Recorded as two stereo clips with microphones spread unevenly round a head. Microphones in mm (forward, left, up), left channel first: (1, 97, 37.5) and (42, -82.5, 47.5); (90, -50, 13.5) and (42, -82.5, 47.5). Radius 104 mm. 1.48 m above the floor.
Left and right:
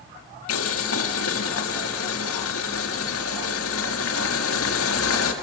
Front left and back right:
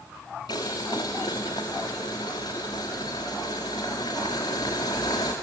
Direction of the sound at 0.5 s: 105° left.